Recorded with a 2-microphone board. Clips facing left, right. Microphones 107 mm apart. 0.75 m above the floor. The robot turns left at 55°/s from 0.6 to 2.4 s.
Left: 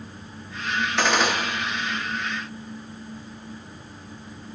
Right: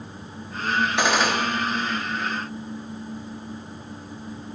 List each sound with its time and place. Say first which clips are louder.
1.0 s a gunshot: left 2 dB; 15° right (ahead or behind), 0.7 m; by 1.4 s centre (ahead or behind), 0.7 m